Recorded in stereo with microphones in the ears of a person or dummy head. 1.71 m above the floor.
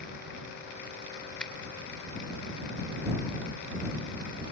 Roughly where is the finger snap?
Centre.